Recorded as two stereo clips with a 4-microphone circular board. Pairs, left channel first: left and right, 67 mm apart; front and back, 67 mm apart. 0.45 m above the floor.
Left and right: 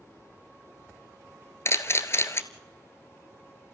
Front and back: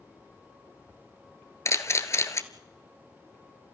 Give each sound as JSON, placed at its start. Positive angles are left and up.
{"t": 1.6, "sound": "a camera shutter", "azimuth_deg": 45, "distance_m": 1.3}